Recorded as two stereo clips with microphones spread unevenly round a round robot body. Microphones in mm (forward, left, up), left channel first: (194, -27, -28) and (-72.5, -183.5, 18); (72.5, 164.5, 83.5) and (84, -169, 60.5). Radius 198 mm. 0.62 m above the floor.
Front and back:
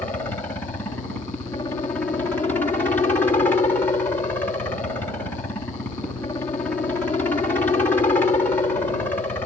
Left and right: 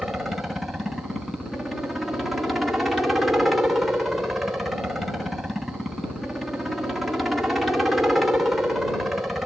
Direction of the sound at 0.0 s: 10° right.